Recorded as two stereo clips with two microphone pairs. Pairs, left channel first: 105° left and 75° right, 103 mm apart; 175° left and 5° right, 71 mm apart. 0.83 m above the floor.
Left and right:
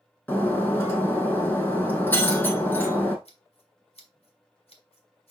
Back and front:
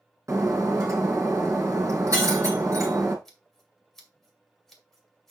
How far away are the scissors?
About 2 m.